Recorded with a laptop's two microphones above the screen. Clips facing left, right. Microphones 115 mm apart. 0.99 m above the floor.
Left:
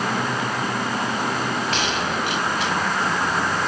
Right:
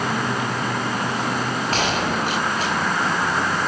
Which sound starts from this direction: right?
A gunshot, at 1.7 s.